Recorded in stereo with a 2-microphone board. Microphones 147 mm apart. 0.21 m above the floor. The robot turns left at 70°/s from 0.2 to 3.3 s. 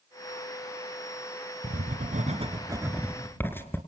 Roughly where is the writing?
Right.